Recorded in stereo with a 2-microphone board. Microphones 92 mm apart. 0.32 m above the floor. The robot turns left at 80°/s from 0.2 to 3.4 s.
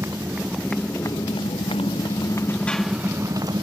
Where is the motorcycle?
150° right; by 3.6 s 45° right.